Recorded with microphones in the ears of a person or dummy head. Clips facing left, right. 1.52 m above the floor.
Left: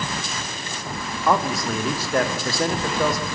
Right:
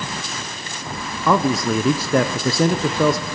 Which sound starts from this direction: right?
A man speaking, at 1.3 s.